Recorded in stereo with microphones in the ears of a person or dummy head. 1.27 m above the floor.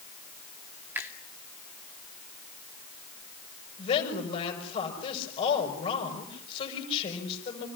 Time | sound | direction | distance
0.9 | a finger snap | 15° right (ahead or behind) | 2.5 m
3.8 | a woman speaking | 30° left (ahead or behind) | 6.5 m